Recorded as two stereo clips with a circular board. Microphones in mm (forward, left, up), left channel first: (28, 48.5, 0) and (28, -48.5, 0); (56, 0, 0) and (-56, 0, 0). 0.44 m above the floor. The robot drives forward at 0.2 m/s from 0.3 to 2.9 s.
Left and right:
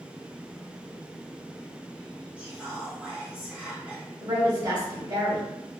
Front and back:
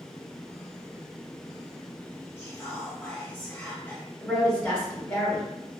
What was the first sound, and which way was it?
Whispering, 25° right.